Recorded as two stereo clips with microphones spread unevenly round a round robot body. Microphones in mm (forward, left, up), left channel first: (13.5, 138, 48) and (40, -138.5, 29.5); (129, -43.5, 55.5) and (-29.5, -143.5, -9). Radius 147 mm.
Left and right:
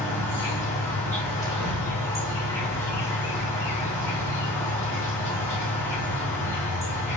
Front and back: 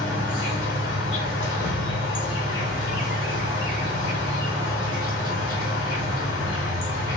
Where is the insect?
15° left, 1.9 m.